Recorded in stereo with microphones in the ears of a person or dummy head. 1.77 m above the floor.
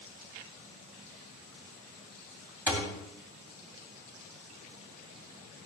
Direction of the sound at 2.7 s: 15° right (ahead or behind).